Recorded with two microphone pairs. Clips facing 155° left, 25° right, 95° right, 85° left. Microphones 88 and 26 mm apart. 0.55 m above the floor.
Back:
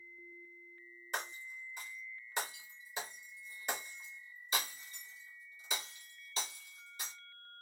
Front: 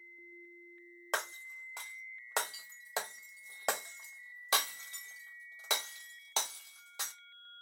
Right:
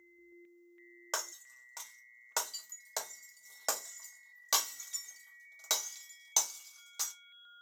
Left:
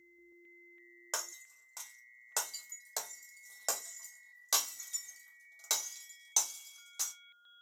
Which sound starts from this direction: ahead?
Breaking glass, at 1.1 s.